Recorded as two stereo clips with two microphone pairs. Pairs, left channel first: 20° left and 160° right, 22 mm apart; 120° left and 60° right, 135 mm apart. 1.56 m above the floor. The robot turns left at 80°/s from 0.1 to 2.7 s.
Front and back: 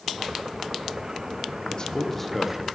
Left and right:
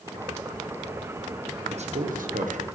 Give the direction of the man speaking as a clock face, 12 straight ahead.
1 o'clock.